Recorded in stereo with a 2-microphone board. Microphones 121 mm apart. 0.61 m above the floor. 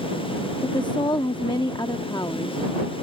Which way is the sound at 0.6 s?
40° left (ahead or behind).